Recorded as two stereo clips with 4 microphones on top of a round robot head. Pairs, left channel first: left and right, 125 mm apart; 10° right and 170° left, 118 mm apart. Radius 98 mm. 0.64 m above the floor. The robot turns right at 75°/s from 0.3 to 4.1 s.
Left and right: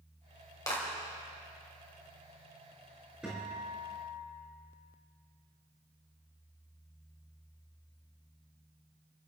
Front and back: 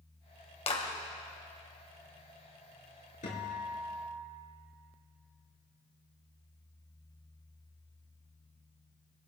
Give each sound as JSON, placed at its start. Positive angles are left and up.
{"t": 0.7, "sound": "a clap", "azimuth_deg": 25, "distance_m": 2.5}
{"t": 3.2, "sound": "a guitar", "azimuth_deg": -5, "distance_m": 5.0}